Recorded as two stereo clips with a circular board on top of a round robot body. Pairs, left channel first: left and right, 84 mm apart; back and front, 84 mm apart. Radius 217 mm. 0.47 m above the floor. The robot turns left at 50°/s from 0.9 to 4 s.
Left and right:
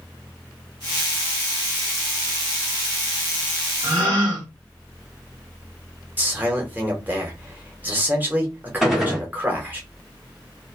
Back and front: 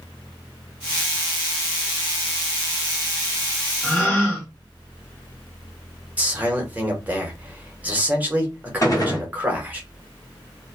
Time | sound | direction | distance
3.8 | a gasp | 100° right | 0.8 m
6.2 | a man speaking | 50° right | 1.3 m
8.8 | a gunshot | 175° right | 1.4 m